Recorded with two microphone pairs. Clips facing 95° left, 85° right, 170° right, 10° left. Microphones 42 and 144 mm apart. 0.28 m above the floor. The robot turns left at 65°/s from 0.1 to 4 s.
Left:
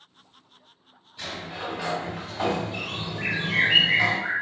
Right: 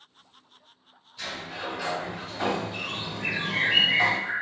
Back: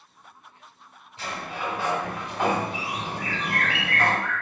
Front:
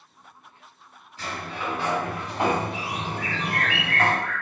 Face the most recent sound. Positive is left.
turn(degrees=60)